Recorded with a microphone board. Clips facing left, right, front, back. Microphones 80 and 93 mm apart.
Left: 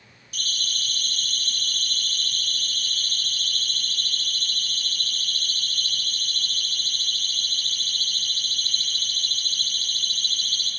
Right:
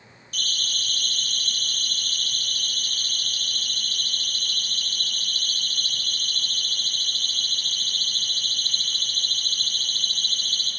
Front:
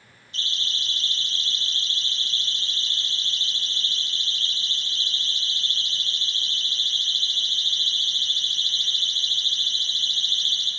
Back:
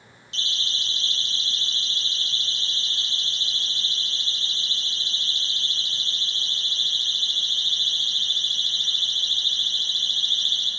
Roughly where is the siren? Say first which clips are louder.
Right 1 dB, even; behind.